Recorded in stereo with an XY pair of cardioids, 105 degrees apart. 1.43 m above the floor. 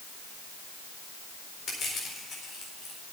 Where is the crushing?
60° left, 4.5 m.